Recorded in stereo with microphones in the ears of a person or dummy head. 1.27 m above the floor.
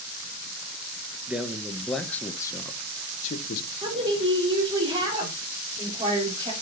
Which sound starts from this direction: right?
A woman speaking, at 3.8 s.